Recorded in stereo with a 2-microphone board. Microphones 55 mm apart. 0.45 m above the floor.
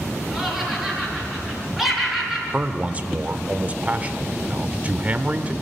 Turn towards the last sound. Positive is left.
turn(degrees=-30)  # may be behind; listen again after turning